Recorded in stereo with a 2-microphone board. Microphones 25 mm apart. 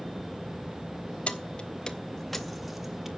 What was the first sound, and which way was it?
Keys jangling, 45° left (ahead or behind).